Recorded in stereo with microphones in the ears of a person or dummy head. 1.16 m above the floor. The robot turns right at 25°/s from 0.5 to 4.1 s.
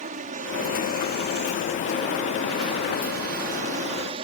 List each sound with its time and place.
0.0 s an aircraft: 35° right (ahead or behind)